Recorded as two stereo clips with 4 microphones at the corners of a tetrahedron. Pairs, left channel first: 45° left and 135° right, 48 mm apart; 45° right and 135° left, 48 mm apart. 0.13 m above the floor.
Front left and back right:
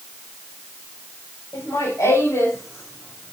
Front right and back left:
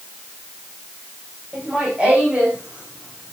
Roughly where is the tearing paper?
No tearing paper in this recording.